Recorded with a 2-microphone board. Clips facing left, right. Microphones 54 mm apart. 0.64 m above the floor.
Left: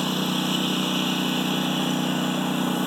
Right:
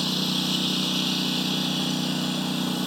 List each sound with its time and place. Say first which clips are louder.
0.0 s a lawn mower: left 2 dB; 20° left (ahead or behind)